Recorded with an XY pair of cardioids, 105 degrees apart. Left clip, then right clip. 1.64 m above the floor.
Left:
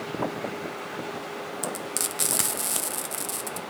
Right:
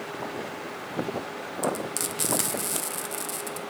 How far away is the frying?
About 1.1 m.